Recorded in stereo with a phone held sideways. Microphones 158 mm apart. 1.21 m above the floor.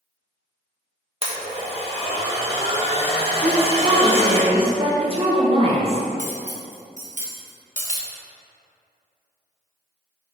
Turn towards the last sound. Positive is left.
turn(degrees=-50)  # may be behind; listen again after turning